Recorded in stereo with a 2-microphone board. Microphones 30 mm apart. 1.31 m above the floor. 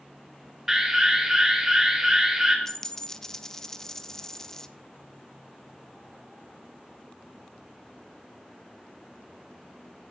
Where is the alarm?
15° right (ahead or behind), 2.5 m.